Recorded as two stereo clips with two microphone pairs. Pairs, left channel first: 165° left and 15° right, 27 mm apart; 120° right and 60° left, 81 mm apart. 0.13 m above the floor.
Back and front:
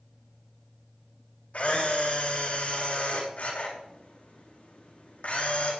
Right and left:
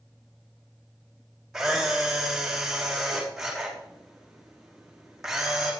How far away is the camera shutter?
About 5 m.